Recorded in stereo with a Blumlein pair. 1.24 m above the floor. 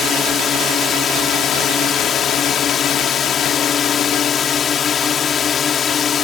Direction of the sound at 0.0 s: 20° left.